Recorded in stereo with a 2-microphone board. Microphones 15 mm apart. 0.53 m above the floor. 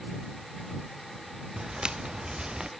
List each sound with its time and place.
1.6 s footsteps: 60° right (ahead or behind); by 2.7 s 70° right (ahead or behind)